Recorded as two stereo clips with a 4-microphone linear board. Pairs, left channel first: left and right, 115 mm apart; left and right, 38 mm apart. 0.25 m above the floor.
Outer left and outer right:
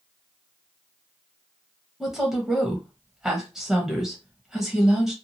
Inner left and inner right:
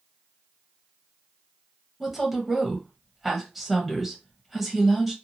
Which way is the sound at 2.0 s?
5° right (ahead or behind).